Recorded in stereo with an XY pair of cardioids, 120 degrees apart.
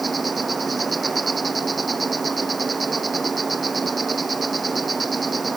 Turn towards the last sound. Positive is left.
turn(degrees=-20)